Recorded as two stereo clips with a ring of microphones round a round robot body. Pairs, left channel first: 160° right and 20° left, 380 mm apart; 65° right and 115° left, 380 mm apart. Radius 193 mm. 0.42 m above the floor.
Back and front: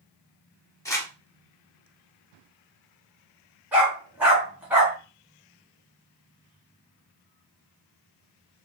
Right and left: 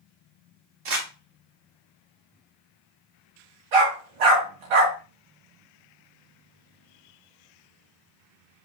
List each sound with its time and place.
0.8 s crumpling: 120° left, 2.0 m
3.7 s a dog barking: 110° left, 1.7 m